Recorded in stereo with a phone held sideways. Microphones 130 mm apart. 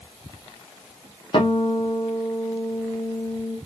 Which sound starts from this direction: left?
A guitar, at 1.3 s.